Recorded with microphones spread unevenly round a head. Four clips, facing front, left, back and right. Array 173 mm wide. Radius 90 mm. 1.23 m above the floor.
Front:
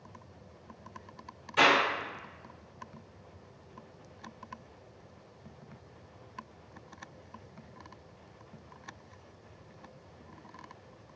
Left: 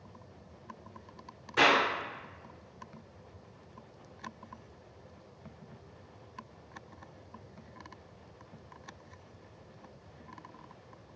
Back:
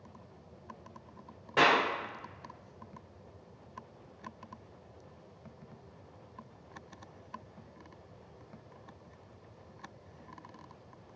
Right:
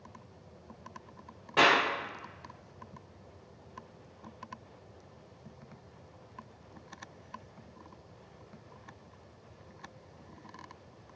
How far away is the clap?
About 1.0 m.